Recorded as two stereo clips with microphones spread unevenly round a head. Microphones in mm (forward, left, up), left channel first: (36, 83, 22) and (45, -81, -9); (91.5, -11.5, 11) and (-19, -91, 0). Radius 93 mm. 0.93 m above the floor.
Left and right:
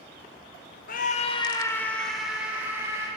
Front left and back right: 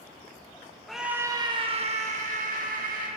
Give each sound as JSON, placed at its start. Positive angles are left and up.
{"t": 0.9, "sound": "a scream", "azimuth_deg": 125, "distance_m": 0.6}